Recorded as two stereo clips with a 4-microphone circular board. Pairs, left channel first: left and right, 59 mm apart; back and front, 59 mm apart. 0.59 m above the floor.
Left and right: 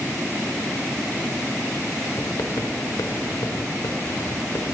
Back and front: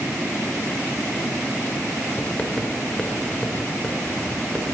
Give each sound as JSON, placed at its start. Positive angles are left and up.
{"t": 2.2, "sound": "writing", "azimuth_deg": 105, "distance_m": 0.8}